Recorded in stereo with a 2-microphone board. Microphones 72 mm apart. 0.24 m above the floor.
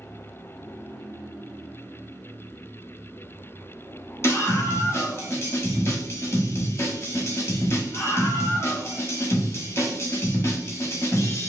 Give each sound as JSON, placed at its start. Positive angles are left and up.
{"t": 4.2, "sound": "a scream", "side_deg": 40, "distance_m": 1.2}